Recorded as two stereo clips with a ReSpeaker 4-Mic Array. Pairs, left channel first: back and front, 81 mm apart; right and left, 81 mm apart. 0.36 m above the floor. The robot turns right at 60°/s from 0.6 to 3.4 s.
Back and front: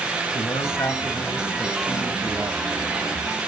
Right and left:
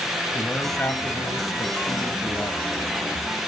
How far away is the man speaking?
About 2.5 m.